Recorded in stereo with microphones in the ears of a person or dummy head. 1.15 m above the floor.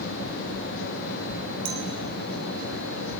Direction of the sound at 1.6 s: 70° right (ahead or behind).